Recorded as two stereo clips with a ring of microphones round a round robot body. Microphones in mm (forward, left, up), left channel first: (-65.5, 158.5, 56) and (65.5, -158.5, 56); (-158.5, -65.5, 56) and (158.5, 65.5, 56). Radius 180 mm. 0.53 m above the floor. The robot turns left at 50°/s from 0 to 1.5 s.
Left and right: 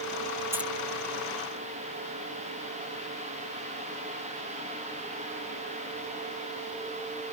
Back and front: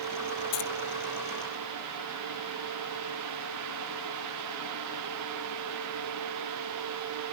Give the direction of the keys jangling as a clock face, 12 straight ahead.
5 o'clock.